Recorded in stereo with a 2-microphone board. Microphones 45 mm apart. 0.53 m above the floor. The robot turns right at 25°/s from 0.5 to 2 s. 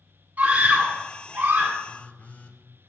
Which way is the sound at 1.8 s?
35° left (ahead or behind).